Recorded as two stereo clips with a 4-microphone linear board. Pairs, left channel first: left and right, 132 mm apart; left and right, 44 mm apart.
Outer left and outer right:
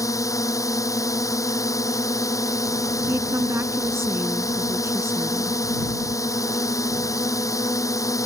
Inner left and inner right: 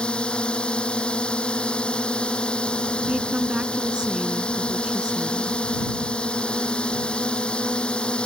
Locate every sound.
0.0 s a drone: 25° left (ahead or behind)
3.1 s a woman speaking: 20° right (ahead or behind)